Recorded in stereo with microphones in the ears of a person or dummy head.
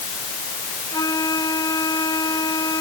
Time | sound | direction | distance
0.9 | a flute | 15° left (ahead or behind) | ?